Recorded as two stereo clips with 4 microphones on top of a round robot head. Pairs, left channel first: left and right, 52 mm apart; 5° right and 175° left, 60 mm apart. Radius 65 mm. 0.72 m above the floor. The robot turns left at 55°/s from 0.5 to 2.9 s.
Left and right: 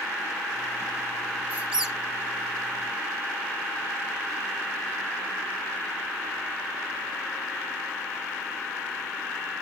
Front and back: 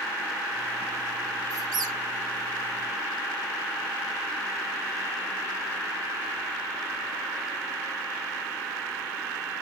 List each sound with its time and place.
1.5 s a squeak: 145° right, 1.5 m; by 1.9 s 170° right, 1.5 m